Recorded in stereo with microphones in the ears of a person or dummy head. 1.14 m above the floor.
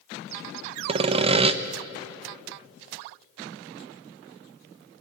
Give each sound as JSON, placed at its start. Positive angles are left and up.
{"t": 0.9, "sound": "sawing", "side_deg": -30, "distance_m": 0.8}